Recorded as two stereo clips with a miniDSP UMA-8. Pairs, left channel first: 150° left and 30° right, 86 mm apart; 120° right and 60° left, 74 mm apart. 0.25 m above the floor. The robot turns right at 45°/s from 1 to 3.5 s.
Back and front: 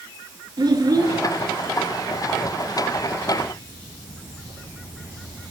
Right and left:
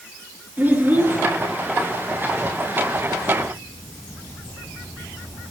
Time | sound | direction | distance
0.6 | a child speaking | straight ahead | 3 m